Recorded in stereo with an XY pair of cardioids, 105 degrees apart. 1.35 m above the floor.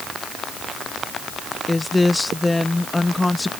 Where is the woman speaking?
15° left.